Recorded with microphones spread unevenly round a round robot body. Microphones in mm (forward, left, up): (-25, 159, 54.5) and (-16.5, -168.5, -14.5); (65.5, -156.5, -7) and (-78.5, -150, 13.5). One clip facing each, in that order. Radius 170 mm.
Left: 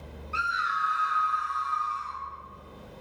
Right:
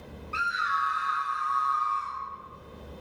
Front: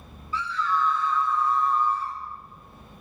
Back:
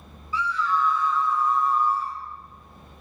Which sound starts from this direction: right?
A scream, at 0.3 s.